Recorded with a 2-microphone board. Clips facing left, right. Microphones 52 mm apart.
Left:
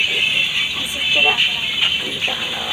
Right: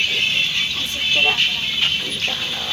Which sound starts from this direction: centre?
A vehicle, at 0.0 s.